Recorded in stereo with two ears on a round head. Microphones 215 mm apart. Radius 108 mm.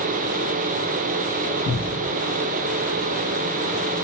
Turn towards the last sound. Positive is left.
turn(degrees=60)  # may be behind; listen again after turning